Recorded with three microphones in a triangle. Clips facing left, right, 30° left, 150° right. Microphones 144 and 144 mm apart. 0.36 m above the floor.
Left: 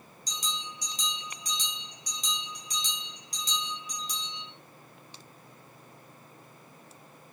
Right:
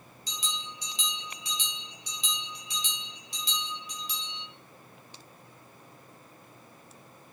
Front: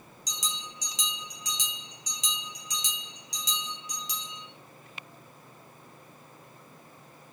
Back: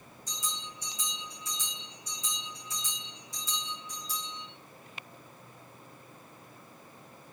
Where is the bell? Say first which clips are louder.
Left 1 dB, front 1 dB; 40° left, 2.5 m.